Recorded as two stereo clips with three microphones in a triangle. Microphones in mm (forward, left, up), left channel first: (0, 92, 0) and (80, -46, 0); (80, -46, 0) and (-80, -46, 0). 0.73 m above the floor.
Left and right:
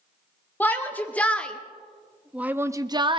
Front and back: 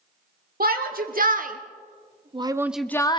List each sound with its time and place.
0.6 s a shout: 165° right, 1.7 m; by 3.2 s 30° right, 0.6 m